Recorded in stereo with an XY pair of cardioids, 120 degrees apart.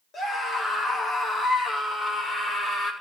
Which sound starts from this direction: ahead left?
A scream, at 0.1 s.